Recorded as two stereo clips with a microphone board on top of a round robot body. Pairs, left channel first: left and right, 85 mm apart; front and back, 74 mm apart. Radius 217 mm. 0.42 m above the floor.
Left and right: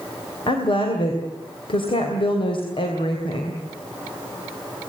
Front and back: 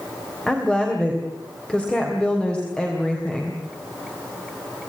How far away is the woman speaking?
About 3 m.